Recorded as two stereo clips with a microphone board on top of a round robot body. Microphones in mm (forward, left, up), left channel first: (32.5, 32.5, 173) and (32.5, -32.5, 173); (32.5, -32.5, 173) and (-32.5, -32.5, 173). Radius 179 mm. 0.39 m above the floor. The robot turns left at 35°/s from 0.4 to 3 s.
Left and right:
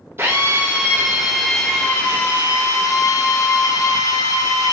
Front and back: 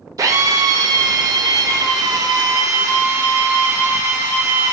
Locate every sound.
0.2 s a drill: 145° right, 0.6 m; by 4.7 s 125° left, 0.6 m